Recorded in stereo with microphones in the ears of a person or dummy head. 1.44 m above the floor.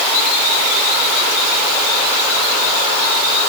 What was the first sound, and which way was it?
Only background noise.